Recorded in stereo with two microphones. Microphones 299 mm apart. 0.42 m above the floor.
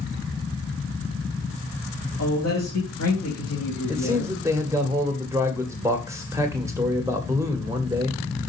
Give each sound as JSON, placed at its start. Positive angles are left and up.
{"t": 2.2, "sound": "a man speaking", "side_deg": 60, "distance_m": 3.0}
{"t": 3.9, "sound": "a man speaking", "side_deg": -10, "distance_m": 2.0}